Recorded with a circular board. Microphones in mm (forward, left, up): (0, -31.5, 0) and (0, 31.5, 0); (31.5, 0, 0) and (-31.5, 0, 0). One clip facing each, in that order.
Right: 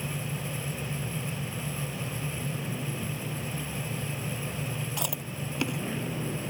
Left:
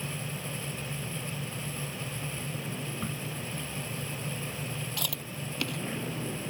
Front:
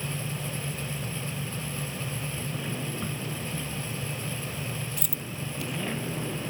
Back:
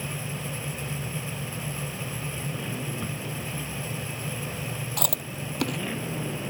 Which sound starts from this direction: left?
A crack, at 3.0 s.